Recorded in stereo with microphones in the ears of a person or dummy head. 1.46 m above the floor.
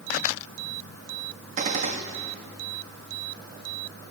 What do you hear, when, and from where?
1.6 s a gunshot: 40° right (ahead or behind), 1.3 m